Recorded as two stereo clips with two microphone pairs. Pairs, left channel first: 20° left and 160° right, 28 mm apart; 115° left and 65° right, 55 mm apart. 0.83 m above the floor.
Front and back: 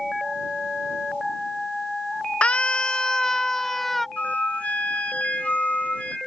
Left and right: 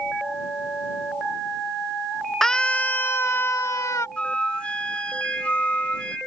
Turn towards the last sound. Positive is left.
turn(degrees=45)